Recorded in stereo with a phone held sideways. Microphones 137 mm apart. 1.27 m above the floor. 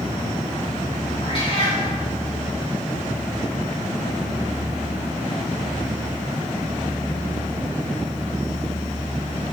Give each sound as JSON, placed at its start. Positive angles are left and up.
{"t": 1.2, "sound": "a cat meowing", "side_deg": 40, "distance_m": 3.0}